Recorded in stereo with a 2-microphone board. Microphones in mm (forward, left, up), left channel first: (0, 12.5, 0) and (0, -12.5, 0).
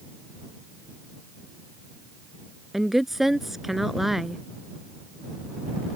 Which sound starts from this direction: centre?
A woman speaking, at 2.7 s.